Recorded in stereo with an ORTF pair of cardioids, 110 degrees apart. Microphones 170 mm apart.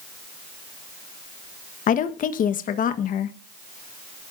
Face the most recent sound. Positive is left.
turn(degrees=55)